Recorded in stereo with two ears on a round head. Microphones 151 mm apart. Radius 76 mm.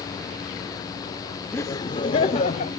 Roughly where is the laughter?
Centre.